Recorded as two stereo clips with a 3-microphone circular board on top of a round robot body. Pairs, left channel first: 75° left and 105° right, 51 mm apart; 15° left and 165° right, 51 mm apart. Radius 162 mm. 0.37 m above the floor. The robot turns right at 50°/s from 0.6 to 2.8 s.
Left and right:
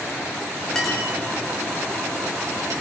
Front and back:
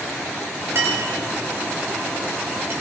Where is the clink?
155° left, 5 m; by 2.7 s 110° right, 5 m.